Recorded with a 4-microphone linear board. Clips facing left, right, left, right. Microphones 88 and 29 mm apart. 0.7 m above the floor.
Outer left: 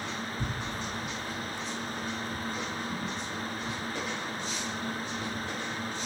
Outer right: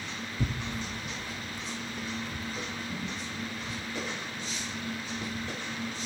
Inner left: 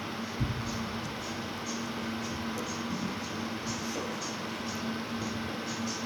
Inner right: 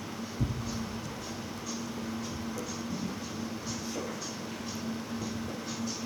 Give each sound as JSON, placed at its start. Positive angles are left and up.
{"t": 0.4, "sound": "tearing paper", "side_deg": -50, "distance_m": 0.5}